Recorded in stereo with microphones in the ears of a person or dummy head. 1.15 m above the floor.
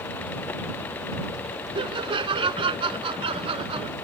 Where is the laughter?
30° right (ahead or behind); by 3.9 s 35° right (ahead or behind).